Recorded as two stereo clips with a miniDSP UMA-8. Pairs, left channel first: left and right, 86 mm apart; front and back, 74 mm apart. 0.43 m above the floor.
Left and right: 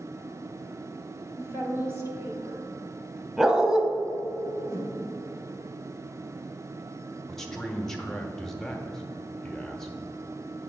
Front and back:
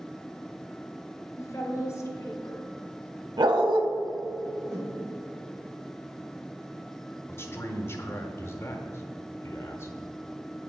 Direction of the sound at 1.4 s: 40° right.